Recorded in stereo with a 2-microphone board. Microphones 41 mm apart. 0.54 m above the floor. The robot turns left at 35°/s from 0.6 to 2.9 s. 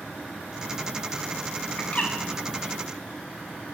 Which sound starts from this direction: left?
A bird, at 1.8 s.